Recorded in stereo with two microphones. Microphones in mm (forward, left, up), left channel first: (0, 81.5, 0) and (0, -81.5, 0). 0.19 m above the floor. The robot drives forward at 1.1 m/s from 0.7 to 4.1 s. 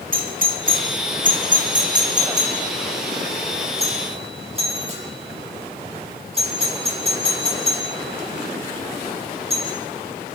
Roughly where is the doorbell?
Right.